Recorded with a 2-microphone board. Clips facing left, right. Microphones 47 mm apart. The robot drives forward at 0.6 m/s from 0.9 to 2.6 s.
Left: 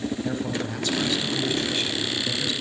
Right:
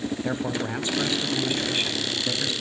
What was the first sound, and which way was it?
A man speaking, 25° right (ahead or behind).